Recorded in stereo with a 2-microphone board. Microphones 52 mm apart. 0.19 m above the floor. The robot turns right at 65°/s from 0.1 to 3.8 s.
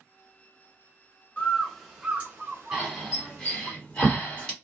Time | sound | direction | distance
1.4 | a bird | 20° left (ahead or behind) | 1.1 m
2.7 | breathing | 5° right (ahead or behind) | 1.6 m